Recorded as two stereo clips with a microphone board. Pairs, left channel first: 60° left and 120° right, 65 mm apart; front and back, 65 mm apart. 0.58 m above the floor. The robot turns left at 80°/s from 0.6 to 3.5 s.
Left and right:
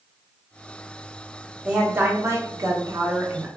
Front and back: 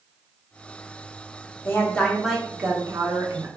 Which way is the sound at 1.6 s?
40° right.